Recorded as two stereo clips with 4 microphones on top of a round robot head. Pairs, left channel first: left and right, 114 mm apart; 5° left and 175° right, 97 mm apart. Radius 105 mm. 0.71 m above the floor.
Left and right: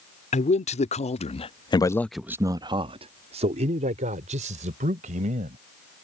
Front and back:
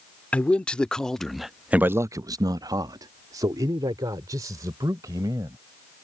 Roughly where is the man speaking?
Left.